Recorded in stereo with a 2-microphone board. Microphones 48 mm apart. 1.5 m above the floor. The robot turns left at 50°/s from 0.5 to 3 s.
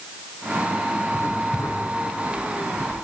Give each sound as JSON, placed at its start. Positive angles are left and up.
{"t": 1.1, "sound": "writing", "side_deg": 80, "distance_m": 9.5}